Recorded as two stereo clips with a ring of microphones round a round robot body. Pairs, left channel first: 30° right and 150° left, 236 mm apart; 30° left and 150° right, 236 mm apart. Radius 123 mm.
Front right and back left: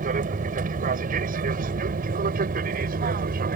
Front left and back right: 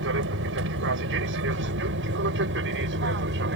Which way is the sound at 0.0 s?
165° right.